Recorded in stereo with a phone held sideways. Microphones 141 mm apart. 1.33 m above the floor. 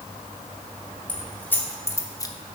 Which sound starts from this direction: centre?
Keys jangling, at 1.1 s.